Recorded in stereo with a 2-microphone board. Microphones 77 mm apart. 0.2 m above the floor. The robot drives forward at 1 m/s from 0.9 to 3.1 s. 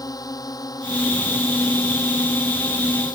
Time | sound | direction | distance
0.0 | a drone | 55° left (ahead or behind) | ?